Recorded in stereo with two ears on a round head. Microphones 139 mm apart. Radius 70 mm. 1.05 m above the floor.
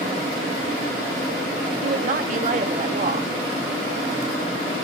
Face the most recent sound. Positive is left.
turn(degrees=-50)  # may be behind; listen again after turning